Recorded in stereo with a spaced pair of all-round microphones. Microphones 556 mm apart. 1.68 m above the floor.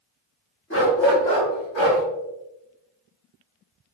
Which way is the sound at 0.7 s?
20° left (ahead or behind).